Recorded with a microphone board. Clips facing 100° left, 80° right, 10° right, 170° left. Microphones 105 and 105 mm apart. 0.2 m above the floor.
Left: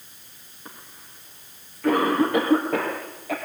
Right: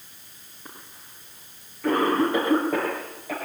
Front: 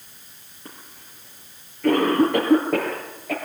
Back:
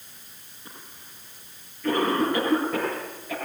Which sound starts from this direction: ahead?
A cough, at 0.7 s.